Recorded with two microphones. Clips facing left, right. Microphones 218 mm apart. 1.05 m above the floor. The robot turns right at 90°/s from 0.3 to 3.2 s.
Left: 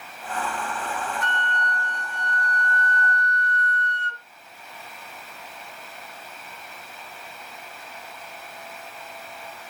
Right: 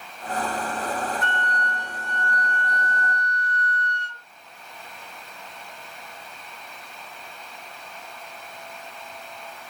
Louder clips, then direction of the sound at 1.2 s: Right 1 dB; 75° right.